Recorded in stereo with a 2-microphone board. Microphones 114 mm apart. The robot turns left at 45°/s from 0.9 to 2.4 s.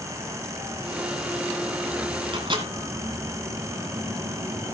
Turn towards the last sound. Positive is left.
turn(degrees=-45)  # may be behind; listen again after turning